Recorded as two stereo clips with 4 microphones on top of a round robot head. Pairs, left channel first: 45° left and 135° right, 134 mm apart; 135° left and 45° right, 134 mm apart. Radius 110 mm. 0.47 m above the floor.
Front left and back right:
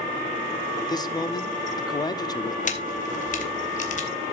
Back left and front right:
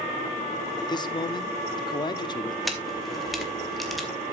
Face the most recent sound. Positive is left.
turn(degrees=45)